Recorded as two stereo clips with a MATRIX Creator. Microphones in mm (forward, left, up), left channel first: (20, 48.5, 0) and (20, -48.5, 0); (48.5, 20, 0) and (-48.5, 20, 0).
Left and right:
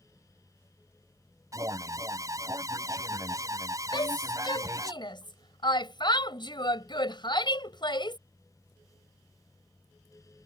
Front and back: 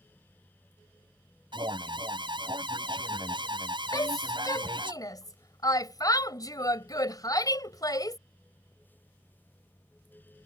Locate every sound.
1.5 s an alarm: 145° right
3.9 s a shout: 50° left